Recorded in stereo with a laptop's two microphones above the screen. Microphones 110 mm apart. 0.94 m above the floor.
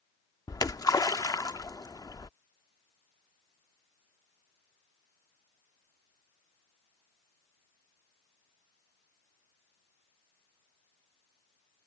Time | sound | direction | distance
0.5 | a splash | 35° left (ahead or behind) | ?